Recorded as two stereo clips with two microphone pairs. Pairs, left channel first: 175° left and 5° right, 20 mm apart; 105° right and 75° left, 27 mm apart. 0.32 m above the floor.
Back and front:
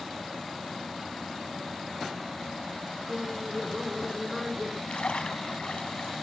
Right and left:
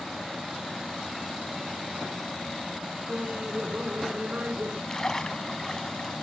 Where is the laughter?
85° left; by 4.8 s 90° left.